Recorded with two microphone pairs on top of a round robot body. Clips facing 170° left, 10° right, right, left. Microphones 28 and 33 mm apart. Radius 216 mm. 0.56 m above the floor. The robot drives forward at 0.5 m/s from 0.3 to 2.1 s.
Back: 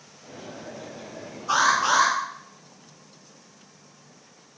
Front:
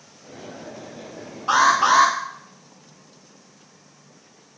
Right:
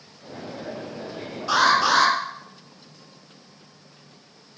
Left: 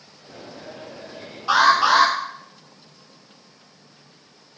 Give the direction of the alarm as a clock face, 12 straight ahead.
11 o'clock.